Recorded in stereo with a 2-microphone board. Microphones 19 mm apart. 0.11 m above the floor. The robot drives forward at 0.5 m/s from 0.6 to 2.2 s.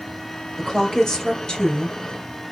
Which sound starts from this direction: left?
A woman speaking, at 0.6 s.